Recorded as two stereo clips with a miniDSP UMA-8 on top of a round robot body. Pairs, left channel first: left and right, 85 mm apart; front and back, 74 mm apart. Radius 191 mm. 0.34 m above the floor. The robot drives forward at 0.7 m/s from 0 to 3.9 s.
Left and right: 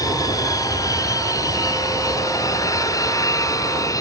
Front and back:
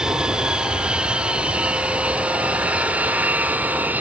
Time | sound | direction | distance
0.0 | an aircraft | 105° left | ?